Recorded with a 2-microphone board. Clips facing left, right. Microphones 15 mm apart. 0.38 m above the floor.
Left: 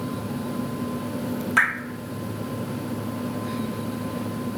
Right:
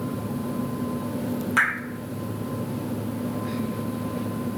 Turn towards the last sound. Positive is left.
turn(degrees=5)  # may be behind; listen again after turning